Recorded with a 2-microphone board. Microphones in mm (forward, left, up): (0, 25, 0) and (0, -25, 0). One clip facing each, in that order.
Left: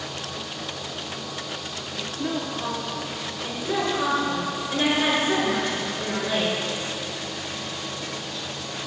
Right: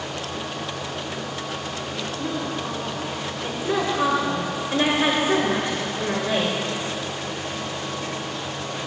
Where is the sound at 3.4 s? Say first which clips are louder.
Right 2 dB; 25° right (ahead or behind), 1.9 m.